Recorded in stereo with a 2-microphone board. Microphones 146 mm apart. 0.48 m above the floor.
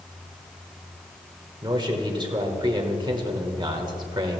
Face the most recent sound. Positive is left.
turn(degrees=-30)  # may be behind; listen again after turning